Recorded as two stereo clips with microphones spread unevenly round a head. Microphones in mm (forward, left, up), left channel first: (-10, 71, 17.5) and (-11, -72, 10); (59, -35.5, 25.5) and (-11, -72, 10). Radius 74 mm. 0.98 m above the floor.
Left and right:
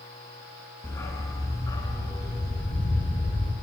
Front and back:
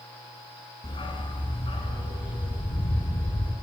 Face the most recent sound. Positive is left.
turn(degrees=30)